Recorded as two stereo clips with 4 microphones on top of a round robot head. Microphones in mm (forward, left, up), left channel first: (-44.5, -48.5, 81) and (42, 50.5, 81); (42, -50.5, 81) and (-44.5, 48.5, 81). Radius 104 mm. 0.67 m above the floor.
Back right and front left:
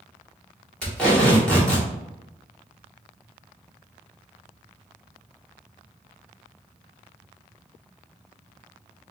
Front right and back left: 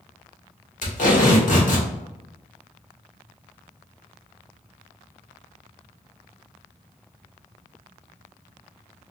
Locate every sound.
0.8 s tape being pulled: 50° right, 1.8 m